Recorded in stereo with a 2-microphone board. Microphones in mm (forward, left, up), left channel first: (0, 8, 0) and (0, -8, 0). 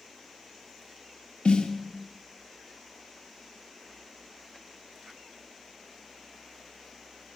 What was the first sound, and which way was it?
A snare drum, 70° left (ahead or behind).